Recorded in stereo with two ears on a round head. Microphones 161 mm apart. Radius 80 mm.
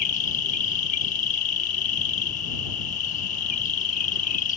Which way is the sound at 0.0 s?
45° left (ahead or behind).